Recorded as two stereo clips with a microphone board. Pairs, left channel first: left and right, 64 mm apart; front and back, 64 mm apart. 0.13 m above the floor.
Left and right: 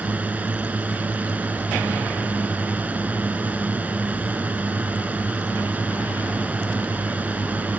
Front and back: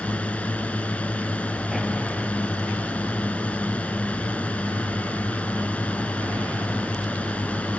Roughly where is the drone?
Ahead right.